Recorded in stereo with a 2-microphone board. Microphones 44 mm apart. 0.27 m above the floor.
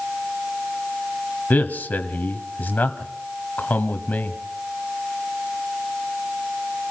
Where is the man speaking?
40° left (ahead or behind), 1.4 m.